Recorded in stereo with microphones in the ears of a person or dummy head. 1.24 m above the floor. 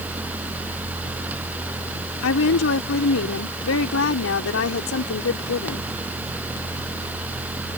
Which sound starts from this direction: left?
A woman speaking, at 2.2 s.